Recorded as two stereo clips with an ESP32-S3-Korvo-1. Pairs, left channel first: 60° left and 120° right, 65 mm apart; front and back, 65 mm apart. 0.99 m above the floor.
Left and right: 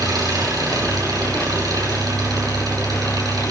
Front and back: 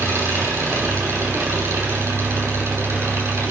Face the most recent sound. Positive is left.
turn(degrees=-130)